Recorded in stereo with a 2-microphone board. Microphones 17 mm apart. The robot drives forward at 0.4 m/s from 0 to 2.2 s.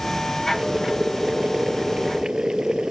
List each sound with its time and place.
0.5 s boiling: 55° right (ahead or behind); by 2.9 s 60° right (ahead or behind)